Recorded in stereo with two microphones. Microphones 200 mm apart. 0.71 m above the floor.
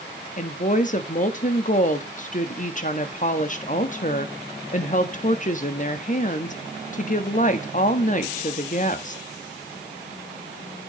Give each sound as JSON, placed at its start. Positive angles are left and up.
{"t": 0.4, "sound": "a woman speaking", "side_deg": 40, "distance_m": 1.4}